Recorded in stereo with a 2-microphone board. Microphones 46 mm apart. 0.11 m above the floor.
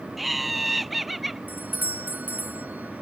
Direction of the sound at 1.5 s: 40° right (ahead or behind).